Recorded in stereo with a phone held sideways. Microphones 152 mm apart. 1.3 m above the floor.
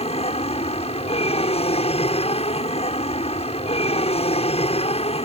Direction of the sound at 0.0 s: 40° left (ahead or behind).